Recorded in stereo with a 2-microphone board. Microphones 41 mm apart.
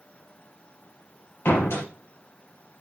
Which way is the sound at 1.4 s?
85° left.